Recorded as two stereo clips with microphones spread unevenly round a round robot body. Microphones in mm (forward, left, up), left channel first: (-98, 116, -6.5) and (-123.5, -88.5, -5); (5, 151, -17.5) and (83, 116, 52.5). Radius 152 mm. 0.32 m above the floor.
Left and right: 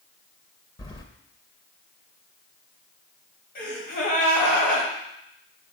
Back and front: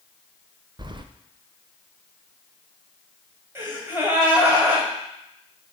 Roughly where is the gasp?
Left.